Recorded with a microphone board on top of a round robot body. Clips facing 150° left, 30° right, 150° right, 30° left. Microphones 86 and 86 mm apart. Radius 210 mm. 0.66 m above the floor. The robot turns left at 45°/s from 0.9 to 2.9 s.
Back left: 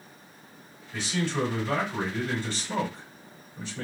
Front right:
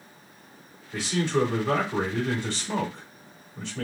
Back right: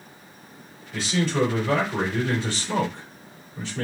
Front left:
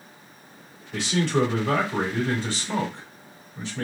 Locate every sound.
0.9 s a man speaking: 35° left, 2.5 m; by 3.8 s 55° right, 2.5 m